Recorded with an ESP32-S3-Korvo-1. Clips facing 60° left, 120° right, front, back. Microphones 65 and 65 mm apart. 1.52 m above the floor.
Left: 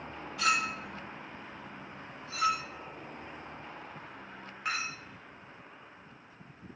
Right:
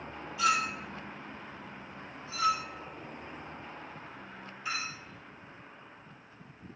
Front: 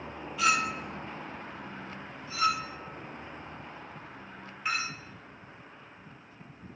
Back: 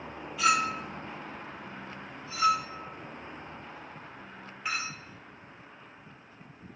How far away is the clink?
About 1.3 m.